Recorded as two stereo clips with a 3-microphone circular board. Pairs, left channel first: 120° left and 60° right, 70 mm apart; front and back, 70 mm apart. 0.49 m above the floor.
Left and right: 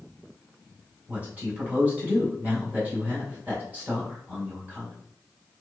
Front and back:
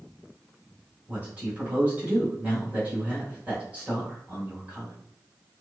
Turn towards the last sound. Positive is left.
turn(degrees=-120)